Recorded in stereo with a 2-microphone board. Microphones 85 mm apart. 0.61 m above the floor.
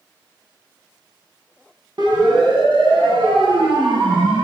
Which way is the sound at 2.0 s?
60° right (ahead or behind).